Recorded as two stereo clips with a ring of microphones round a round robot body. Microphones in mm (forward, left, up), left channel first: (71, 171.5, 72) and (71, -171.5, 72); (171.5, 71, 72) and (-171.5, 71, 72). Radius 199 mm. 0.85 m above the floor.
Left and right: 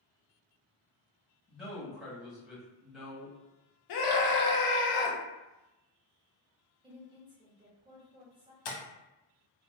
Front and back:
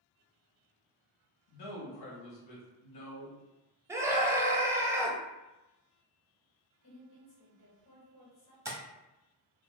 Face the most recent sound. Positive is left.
turn(degrees=100)